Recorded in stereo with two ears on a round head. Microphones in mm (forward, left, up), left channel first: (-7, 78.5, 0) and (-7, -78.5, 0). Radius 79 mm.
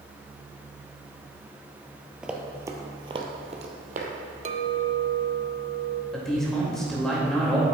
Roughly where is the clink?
Right.